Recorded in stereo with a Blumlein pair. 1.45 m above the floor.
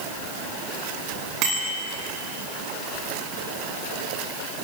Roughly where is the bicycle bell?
Ahead right.